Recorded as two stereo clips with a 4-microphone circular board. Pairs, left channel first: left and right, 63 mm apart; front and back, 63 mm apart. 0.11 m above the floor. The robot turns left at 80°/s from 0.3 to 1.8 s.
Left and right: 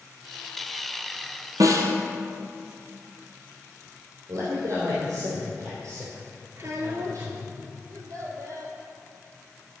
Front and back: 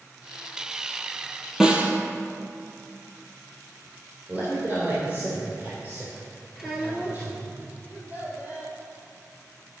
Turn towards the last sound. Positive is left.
turn(degrees=-120)